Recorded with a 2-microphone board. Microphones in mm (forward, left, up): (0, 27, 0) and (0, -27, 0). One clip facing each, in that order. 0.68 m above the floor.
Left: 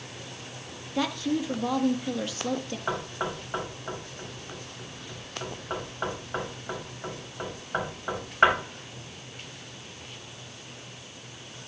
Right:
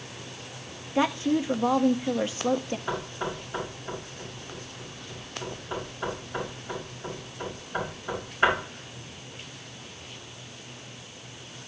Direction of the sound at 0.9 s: 25° right (ahead or behind).